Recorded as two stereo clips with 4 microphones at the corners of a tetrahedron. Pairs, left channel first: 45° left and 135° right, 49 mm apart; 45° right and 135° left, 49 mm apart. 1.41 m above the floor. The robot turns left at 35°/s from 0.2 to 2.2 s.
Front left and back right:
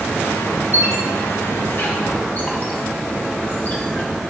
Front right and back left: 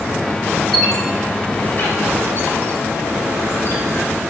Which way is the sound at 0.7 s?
45° left.